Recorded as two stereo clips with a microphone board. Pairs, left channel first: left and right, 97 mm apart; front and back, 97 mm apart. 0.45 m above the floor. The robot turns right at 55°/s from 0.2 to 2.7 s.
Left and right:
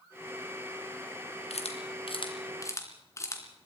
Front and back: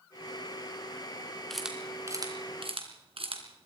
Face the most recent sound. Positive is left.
turn(degrees=150)